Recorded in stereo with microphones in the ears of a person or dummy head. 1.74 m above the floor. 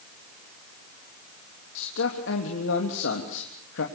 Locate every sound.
1.8 s a man speaking: 70° left (ahead or behind), 3 m